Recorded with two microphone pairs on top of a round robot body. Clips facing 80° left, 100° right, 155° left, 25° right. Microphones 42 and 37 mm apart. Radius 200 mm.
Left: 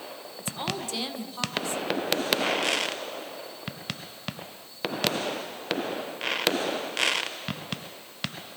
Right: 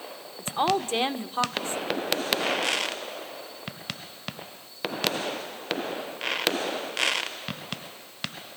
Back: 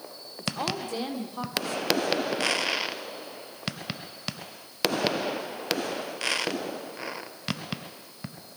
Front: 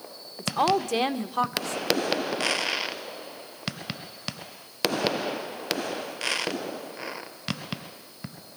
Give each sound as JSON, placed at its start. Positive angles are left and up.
{"t": 0.4, "sound": "a woman speaking", "azimuth_deg": -50, "distance_m": 1.6}